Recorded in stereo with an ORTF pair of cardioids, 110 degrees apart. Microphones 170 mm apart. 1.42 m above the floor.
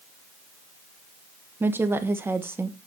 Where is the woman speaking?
15° right, 1.1 m.